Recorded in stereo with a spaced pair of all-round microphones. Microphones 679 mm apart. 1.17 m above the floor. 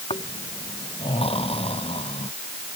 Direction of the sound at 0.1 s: 10° left (ahead or behind).